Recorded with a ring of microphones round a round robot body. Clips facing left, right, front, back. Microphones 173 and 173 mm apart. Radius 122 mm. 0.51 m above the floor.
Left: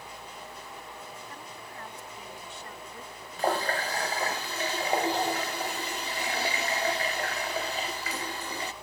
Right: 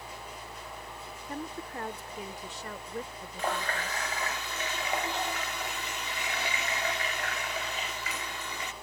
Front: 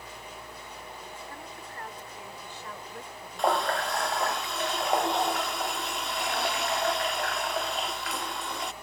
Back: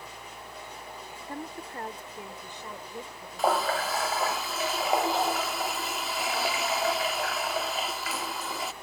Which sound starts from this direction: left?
A running tap, at 3.4 s.